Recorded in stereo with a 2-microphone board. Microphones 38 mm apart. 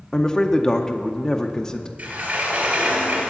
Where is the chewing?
I don't hear chewing.